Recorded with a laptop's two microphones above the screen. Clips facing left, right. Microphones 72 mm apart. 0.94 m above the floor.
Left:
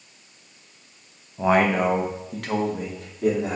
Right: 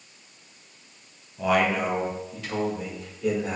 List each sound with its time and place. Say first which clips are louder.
1.4 s a man speaking: left 4 dB; 25° left (ahead or behind), 0.9 m; by 3.6 s 75° left (ahead or behind), 3 m